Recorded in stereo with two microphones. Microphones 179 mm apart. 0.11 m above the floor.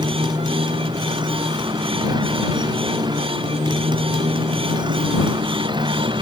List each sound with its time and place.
0.0 s a motorcycle: 25° right (ahead or behind)